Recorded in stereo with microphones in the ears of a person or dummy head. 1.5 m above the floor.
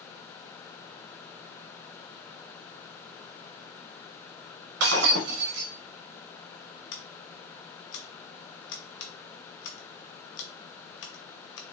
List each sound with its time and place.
4.8 s breaking glass: 55° right (ahead or behind), 1.1 m
6.9 s scissors: 55° left (ahead or behind), 0.8 m